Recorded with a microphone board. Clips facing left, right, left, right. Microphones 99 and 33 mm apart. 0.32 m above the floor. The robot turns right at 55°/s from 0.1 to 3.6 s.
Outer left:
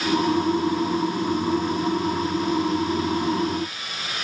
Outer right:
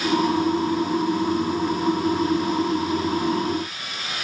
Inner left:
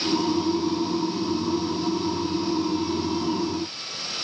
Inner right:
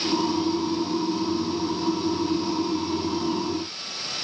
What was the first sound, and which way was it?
Only background noise.